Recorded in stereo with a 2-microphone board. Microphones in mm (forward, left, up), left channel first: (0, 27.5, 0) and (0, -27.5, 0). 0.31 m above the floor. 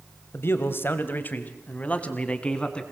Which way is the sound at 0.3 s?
50° left (ahead or behind).